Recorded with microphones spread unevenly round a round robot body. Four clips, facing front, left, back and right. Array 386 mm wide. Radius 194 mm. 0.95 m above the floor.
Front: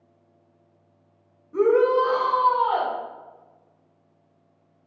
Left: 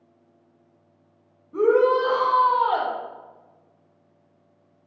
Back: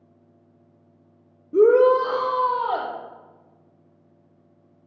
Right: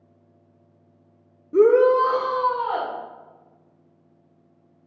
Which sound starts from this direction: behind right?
A shout, at 1.5 s.